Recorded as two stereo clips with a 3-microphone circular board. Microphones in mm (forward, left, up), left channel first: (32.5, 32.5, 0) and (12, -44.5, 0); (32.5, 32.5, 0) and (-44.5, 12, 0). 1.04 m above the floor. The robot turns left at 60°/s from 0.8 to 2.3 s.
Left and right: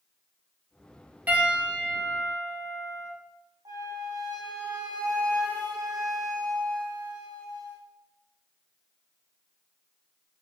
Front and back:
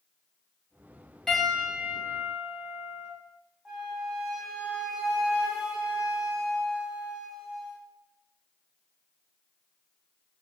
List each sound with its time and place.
1.3 s a piano: 60° right, 0.8 m; by 3.1 s 120° right, 0.8 m
3.6 s a flute: 80° right, 0.7 m